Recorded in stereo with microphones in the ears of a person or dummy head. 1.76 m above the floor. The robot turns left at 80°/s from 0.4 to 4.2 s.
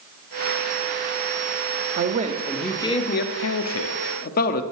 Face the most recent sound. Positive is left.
turn(degrees=50)